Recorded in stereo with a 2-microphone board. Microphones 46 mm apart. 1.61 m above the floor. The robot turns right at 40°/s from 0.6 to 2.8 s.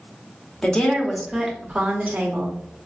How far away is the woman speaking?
About 0.8 m.